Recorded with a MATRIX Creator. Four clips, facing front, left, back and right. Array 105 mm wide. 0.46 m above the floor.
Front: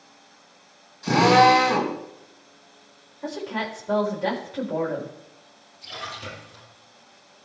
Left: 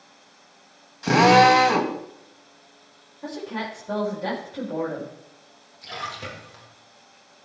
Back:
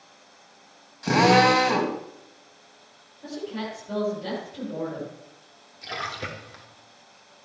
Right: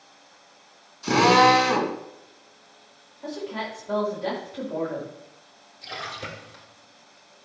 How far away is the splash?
About 3 m.